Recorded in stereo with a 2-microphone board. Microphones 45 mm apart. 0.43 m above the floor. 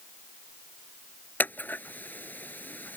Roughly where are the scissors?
Left.